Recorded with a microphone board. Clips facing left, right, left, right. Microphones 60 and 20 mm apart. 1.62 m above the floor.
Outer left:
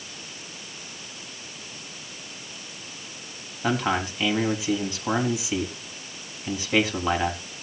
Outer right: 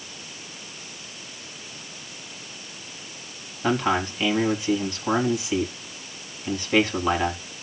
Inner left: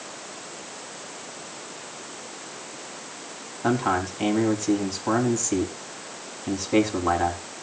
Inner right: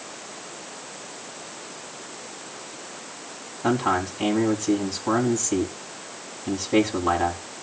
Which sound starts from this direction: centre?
A man speaking, at 3.6 s.